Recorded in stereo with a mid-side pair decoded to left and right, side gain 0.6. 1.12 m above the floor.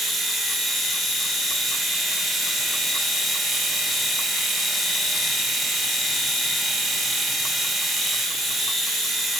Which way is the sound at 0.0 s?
5° right.